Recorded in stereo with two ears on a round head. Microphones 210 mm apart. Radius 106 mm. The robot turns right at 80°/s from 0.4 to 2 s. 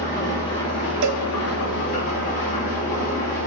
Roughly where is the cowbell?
Right.